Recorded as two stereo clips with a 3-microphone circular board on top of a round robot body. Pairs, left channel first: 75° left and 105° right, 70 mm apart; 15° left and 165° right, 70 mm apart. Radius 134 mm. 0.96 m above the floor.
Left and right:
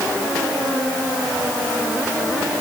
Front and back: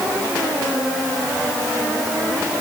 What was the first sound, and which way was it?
Only background noise.